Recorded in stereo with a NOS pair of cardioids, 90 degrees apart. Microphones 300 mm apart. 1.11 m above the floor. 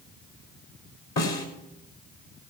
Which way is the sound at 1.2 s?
60° left.